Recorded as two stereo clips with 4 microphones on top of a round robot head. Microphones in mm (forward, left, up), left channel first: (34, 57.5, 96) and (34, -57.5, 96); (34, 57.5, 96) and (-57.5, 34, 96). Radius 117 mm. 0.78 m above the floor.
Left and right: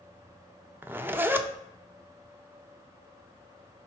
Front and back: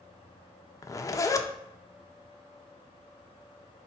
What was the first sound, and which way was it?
A zipper, 25° right.